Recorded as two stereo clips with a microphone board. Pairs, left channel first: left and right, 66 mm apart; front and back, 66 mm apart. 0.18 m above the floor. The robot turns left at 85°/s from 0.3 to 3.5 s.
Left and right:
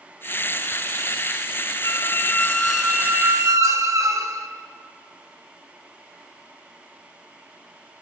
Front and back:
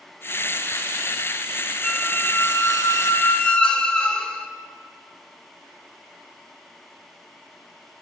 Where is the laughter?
No laughter in this recording.